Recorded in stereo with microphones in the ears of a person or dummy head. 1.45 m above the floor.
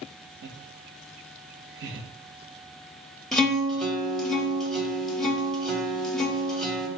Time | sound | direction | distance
0.4 | laughter | 65° right (ahead or behind) | 0.7 m
3.3 | a guitar | 5° left (ahead or behind) | 0.6 m